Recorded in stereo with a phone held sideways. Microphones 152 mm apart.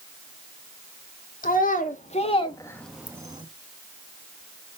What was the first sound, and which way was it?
A child speaking, 65° left (ahead or behind).